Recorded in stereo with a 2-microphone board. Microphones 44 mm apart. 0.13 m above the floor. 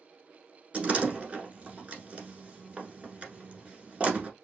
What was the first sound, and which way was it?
A door slam, 30° right (ahead or behind).